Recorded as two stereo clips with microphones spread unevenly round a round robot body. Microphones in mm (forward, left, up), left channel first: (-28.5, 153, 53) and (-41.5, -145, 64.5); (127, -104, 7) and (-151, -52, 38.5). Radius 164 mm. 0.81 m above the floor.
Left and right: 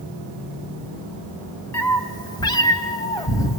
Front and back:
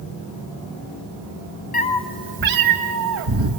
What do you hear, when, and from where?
1.7 s a cat meowing: 10° left, 0.5 m; by 3.6 s 165° left, 1.4 m